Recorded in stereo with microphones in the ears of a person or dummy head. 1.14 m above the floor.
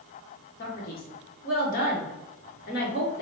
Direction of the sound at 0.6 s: 55° left (ahead or behind).